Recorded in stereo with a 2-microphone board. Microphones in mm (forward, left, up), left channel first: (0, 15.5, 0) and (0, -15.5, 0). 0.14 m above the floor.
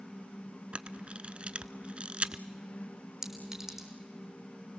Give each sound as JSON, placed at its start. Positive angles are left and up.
{"t": 0.7, "sound": "a camera shutter", "side_deg": -45, "distance_m": 0.6}
{"t": 3.2, "sound": "a clink", "side_deg": -15, "distance_m": 3.5}